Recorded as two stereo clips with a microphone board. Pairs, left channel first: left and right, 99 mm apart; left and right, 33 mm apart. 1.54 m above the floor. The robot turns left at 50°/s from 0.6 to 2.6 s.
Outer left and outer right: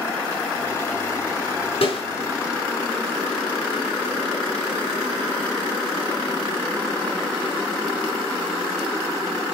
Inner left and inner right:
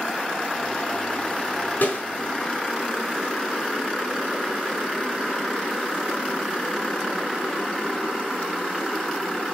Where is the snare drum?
70° left (ahead or behind), 4 m; by 2.0 s 65° left (ahead or behind), 4 m.